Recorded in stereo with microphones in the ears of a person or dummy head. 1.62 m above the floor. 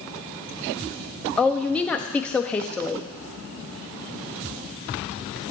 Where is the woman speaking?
10° left (ahead or behind), 0.7 m.